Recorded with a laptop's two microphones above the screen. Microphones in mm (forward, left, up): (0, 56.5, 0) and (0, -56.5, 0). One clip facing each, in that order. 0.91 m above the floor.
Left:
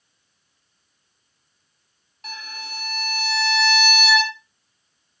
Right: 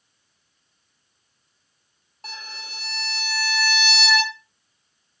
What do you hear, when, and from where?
2.2 s a violin: 35° right (ahead or behind), 1.1 m